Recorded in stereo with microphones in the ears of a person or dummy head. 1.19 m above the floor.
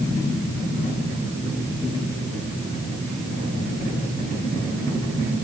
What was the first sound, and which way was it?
Only background noise.